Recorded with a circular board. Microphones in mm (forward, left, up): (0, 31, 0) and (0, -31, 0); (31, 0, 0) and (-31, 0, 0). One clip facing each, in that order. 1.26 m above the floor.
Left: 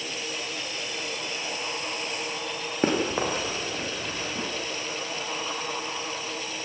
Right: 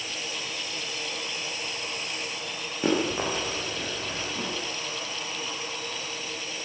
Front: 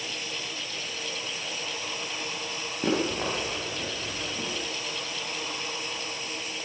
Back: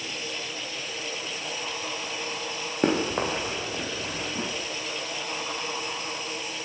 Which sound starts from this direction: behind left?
Running footsteps, at 2.8 s.